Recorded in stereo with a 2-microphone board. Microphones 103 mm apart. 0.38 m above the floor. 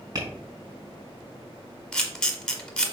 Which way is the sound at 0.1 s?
35° right (ahead or behind).